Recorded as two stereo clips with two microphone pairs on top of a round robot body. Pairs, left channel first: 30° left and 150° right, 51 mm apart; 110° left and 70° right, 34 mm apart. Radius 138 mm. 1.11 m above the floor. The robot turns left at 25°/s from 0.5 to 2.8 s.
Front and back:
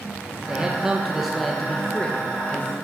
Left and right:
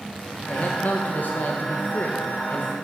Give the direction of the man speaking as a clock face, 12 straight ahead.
7 o'clock.